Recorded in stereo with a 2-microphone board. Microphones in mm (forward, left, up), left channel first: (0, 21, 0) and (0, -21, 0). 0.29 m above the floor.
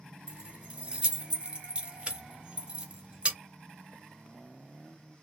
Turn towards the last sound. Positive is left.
turn(degrees=-25)  # may be behind; listen again after turning